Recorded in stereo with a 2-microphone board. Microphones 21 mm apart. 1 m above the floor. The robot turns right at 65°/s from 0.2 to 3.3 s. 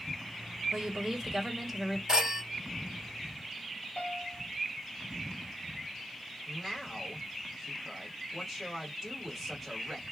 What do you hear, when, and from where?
0.7 s a woman speaking: 70° right, 1.1 m; by 2.0 s 15° left, 1.1 m
2.1 s a phone ringing: 30° right (ahead or behind), 0.8 m; by 2.4 s 50° right (ahead or behind), 0.8 m
4.0 s a piano: 55° left (ahead or behind), 1.1 m
6.5 s a man speaking: 10° right (ahead or behind), 1.1 m